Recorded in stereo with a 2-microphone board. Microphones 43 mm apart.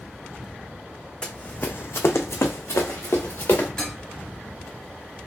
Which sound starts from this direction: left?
Running footsteps, at 1.2 s.